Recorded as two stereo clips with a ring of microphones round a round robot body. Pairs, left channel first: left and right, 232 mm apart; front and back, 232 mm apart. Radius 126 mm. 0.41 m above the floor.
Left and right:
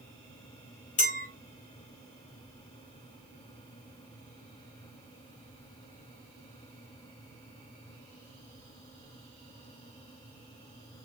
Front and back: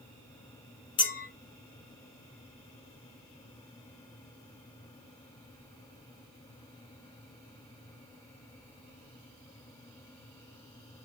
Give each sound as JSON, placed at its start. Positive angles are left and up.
{"t": 1.0, "sound": "a clink", "azimuth_deg": 55, "distance_m": 0.7}